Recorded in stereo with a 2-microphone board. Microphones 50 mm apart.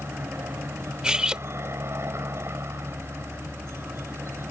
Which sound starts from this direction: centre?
Cutlery clinking, at 1.0 s.